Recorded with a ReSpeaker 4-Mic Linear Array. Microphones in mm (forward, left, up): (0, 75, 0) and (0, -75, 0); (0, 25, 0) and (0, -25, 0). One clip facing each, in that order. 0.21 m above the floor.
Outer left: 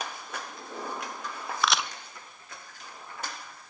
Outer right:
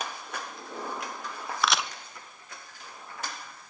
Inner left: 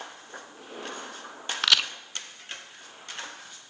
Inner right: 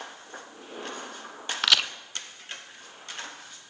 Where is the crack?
Centre (ahead or behind), 0.9 m.